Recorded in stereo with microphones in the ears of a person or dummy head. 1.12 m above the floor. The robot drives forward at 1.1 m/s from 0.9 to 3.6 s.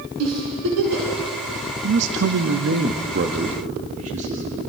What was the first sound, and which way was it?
A giggle, 75° right (ahead or behind).